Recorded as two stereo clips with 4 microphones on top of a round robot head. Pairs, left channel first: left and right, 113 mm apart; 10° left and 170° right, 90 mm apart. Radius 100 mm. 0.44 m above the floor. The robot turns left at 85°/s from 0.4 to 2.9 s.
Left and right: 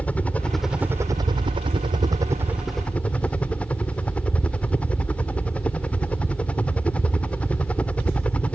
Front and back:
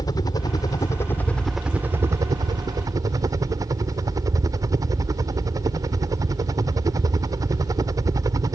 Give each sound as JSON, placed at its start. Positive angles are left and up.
{"t": 0.0, "sound": "a helicopter", "azimuth_deg": 20}